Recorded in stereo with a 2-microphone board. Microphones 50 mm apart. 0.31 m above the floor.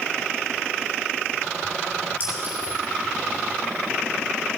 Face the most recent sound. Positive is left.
turn(degrees=-35)  # may be behind; listen again after turning